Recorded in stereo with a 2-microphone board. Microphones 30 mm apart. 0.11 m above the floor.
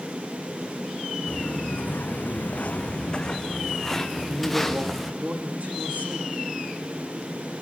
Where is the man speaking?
75° right (ahead or behind), 7 m.